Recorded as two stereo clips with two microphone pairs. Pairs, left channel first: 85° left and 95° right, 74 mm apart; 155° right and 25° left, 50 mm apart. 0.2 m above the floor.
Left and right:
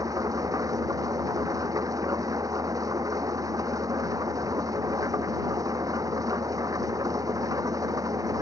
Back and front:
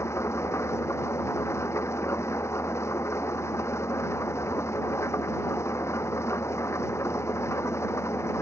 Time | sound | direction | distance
0.0 | an engine running | 130° right | ?